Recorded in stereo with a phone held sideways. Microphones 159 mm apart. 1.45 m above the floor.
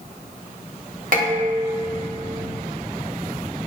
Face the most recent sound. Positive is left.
turn(degrees=-60)  # may be behind; listen again after turning